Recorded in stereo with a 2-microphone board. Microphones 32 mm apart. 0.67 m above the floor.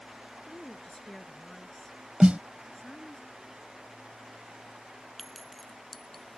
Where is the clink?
5° left (ahead or behind).